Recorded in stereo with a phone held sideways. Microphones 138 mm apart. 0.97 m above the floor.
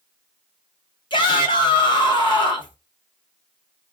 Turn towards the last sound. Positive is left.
turn(degrees=35)  # may be behind; listen again after turning